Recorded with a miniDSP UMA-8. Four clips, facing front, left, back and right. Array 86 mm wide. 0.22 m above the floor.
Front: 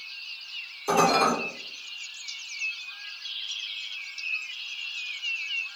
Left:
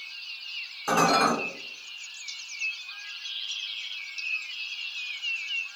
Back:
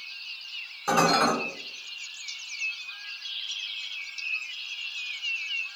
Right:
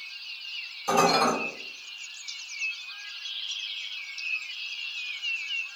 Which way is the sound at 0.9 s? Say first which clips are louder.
Even, front 1 dB; 145° left.